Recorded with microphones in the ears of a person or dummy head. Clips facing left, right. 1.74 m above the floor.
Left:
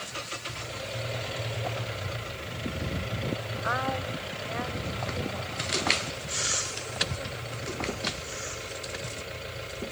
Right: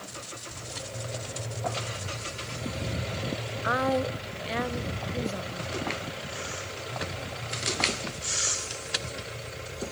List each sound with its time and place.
3.6 s a woman speaking: 40° right (ahead or behind), 0.9 m; by 5.7 s 25° right (ahead or behind), 1.5 m